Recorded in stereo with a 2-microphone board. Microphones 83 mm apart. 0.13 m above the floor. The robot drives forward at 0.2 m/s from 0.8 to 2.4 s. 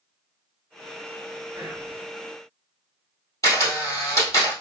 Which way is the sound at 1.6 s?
10° right (ahead or behind).